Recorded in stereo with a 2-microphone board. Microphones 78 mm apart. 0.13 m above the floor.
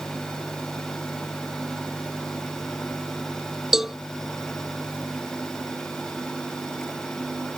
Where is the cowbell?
5° right (ahead or behind).